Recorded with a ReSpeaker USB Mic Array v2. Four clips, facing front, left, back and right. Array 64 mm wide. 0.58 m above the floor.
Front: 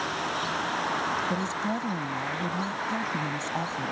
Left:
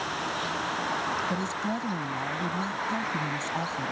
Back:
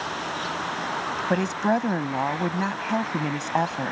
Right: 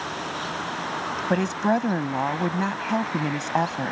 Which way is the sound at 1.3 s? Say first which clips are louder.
Right 8 dB, back 6 dB; 135° right.